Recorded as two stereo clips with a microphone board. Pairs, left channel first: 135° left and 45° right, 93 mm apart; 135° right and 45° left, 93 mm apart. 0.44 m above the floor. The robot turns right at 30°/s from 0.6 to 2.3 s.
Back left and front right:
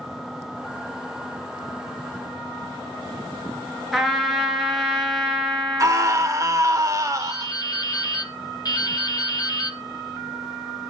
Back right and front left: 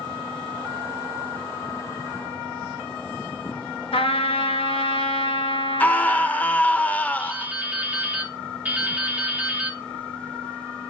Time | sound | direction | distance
3.9 | a trumpet | 135° right | 1.7 m
5.8 | a scream | 70° right | 1.1 m
7.2 | dripping | 115° left | 1.9 m